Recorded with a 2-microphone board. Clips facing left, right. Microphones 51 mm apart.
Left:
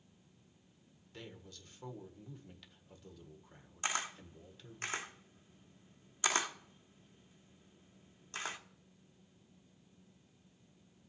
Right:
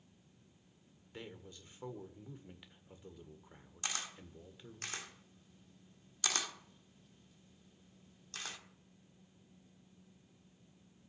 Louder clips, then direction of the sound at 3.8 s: Left 5 dB; 25° left (ahead or behind).